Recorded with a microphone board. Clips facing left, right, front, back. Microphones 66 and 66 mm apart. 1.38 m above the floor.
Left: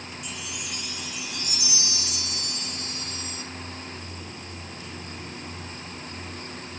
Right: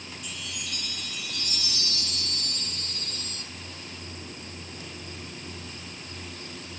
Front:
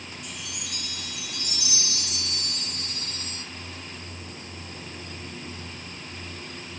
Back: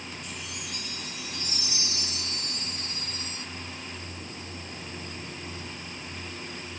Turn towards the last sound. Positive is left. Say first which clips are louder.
# even, even
turn(degrees=10)